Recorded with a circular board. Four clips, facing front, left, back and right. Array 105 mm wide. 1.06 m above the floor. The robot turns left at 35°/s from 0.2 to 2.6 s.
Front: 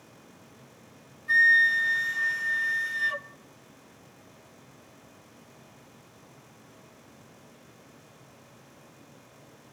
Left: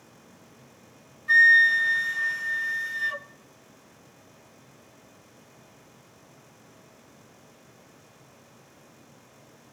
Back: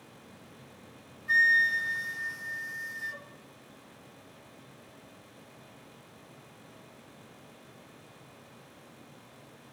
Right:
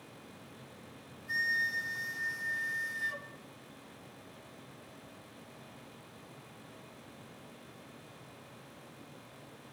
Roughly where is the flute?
Left.